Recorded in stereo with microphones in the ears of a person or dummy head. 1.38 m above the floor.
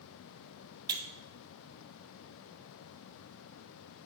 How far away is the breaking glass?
About 1.3 m.